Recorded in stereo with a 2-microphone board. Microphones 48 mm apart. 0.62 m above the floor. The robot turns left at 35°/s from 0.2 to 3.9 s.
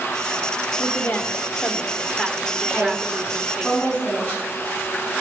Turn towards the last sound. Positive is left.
turn(degrees=35)  # may be behind; listen again after turning